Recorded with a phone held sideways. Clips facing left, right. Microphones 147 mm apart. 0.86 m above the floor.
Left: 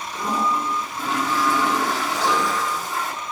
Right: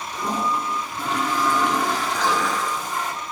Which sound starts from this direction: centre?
A toilet flushing, at 0.1 s.